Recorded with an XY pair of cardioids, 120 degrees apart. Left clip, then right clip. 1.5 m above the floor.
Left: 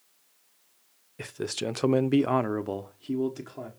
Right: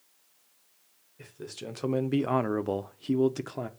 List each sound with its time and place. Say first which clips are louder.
1.2 s a man speaking: left 9 dB; 65° left, 0.7 m; by 3.7 s 40° right, 0.9 m